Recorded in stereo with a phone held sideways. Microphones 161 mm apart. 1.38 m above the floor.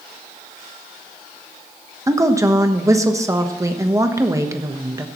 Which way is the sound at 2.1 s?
20° right (ahead or behind).